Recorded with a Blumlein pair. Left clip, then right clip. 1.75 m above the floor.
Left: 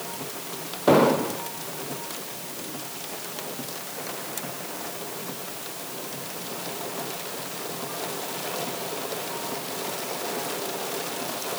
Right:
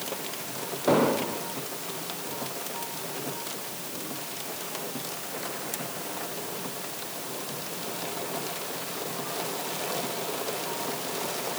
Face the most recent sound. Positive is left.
turn(degrees=15)